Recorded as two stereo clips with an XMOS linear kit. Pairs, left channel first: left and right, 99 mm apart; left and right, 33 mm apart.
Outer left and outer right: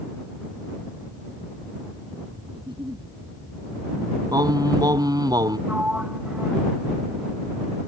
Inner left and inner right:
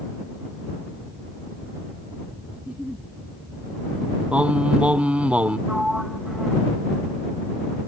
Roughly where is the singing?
Right.